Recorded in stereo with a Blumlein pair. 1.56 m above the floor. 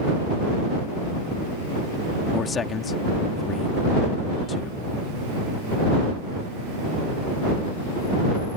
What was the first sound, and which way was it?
A man speaking, 20° left.